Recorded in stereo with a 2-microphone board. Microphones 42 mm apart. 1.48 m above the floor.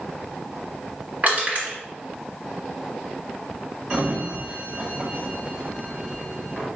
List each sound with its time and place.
1.2 s crushing: 45° right (ahead or behind), 2 m
3.9 s a sliding door: 30° right (ahead or behind), 1.2 m